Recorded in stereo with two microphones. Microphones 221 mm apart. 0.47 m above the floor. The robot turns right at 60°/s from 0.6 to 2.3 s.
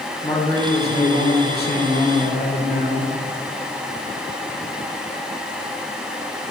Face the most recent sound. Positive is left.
turn(degrees=125)